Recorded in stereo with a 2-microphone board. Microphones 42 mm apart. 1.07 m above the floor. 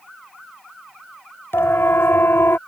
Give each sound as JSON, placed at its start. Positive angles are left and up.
{"t": 1.5, "sound": "a siren", "side_deg": 75}